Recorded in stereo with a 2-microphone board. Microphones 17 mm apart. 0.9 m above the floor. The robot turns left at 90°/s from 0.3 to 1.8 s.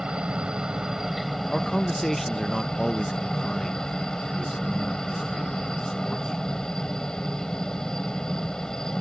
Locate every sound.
0.0 s a helicopter: 90° right; by 9.0 s 135° left
1.5 s a man speaking: 25° left (ahead or behind); by 6.6 s 15° left (ahead or behind)